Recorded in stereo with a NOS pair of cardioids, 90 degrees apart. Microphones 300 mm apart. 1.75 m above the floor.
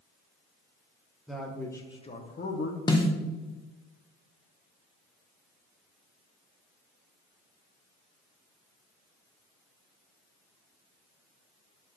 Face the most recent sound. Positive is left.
turn(degrees=15)